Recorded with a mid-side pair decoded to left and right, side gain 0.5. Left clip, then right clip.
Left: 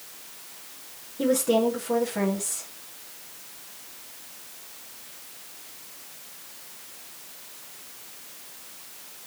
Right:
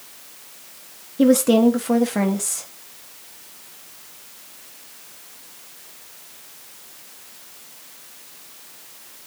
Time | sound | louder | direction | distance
1.2 | a woman speaking | right 6 dB | 55° right | 1.7 m